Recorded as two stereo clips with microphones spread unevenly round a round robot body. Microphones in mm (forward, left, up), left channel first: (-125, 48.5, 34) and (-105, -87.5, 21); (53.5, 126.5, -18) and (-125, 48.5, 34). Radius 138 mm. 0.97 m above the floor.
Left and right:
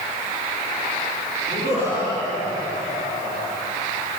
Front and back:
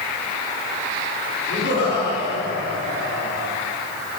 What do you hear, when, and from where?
1.5 s laughter: 20° right, 9.5 m; by 3.5 s 25° right, 9 m